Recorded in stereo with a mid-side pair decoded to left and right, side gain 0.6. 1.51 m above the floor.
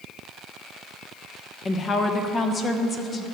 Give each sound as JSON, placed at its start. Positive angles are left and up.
{"t": 1.6, "sound": "a woman speaking", "azimuth_deg": 35, "distance_m": 1.1}